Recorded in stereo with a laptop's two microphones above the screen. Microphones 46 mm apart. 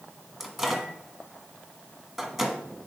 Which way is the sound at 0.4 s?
5° right (ahead or behind).